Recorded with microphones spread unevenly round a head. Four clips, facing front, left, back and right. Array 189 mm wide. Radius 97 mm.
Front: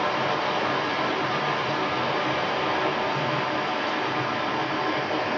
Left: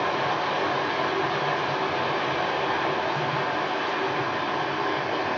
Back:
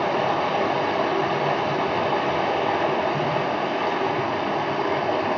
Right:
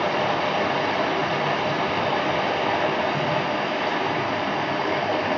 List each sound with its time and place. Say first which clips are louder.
0.0 s running water: right 3 dB, back 3 dB; 160° right, 0.8 m